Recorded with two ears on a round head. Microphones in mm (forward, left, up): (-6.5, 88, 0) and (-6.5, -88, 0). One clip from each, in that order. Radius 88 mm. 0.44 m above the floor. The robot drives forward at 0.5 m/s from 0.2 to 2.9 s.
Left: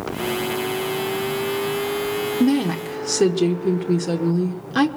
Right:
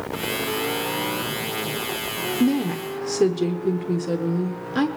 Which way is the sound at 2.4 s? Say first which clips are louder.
Left 2 dB; 20° left (ahead or behind).